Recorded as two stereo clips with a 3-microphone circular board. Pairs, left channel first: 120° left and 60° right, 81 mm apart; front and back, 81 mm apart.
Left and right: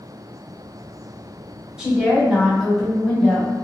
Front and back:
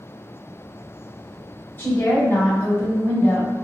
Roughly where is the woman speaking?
Ahead.